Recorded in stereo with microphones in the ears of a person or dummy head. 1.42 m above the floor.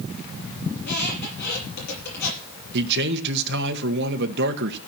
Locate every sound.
0.8 s a squeak: 55° left (ahead or behind), 6.5 m
2.7 s a man speaking: 55° right (ahead or behind), 1.4 m